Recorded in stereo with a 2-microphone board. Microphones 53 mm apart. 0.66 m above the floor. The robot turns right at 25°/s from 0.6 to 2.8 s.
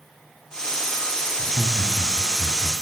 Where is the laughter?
30° left (ahead or behind), 1.0 m; by 2.7 s 5° left (ahead or behind), 1.0 m.